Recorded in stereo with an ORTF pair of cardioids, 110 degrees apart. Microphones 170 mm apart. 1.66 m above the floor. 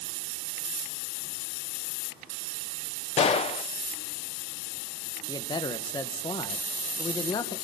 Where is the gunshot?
35° left, 1.3 m.